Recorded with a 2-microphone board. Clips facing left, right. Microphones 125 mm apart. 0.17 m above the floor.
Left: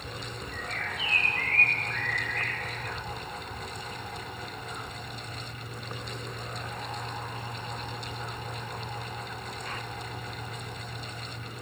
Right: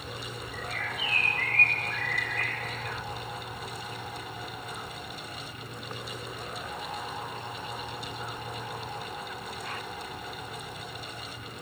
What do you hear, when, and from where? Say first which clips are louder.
0.5 s a bird: right 1 dB; 70° left (ahead or behind), 3.5 m